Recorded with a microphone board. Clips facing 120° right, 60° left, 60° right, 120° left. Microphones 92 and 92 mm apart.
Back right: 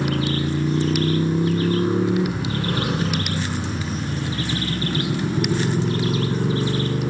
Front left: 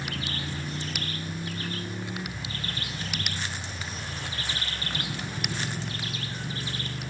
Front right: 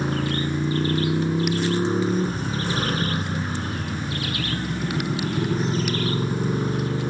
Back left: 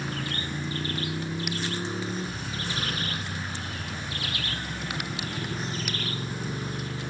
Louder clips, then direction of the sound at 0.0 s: Back right 13 dB, front right 9 dB; 115° right.